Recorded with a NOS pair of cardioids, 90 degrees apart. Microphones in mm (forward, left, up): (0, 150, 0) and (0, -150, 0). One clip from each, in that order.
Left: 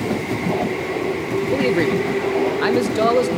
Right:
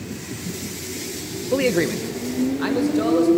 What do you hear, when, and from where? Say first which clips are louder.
1.5 s a man speaking: even; 15° right, 0.9 m; by 3.3 s 45° left, 2 m